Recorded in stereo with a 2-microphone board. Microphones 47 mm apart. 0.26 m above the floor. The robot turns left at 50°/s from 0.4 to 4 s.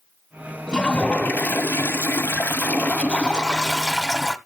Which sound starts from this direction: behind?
A toilet flushing, at 0.7 s.